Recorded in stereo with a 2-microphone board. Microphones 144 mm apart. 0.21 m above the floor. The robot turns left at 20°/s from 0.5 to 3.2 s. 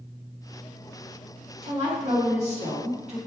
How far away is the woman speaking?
About 1.7 m.